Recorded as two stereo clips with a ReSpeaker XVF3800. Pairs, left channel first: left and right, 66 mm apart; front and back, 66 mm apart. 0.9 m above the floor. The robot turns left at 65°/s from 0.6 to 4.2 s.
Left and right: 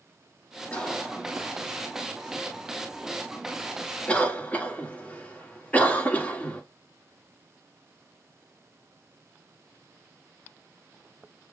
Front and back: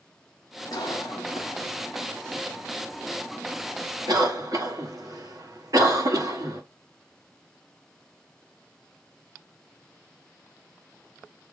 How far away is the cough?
About 1.6 m.